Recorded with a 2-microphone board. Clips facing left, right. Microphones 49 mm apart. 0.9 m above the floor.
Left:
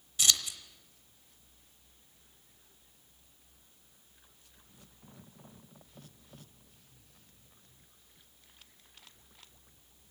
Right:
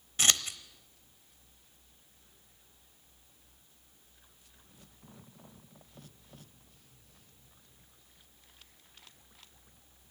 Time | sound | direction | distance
0.2 | scissors | 40° right (ahead or behind) | 0.8 m